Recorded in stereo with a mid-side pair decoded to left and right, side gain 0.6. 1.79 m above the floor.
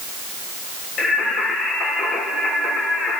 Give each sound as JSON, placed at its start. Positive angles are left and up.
{"t": 1.0, "sound": "singing", "azimuth_deg": 50, "distance_m": 4.0}